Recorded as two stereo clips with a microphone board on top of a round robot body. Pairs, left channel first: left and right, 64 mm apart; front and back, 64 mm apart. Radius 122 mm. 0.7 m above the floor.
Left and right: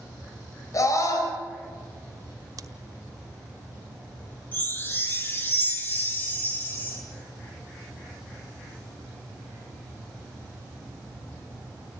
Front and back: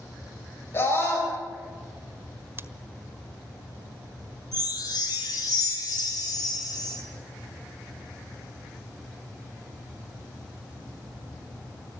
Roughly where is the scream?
Ahead left.